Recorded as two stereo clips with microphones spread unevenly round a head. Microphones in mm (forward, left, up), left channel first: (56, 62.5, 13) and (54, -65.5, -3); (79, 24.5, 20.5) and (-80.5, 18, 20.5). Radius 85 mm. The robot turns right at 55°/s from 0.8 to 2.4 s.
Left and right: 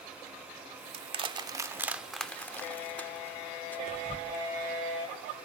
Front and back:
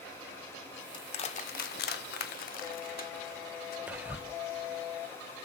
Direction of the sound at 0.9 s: 60° right.